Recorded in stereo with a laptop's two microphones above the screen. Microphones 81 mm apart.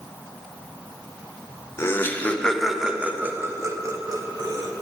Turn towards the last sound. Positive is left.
turn(degrees=-60)  # may be behind; listen again after turning